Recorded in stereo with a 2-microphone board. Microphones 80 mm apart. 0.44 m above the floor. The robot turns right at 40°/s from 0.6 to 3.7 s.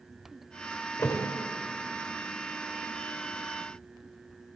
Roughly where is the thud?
Left.